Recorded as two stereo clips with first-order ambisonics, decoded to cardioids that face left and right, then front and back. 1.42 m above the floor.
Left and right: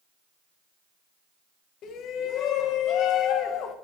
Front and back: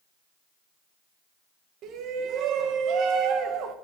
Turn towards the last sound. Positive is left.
turn(degrees=135)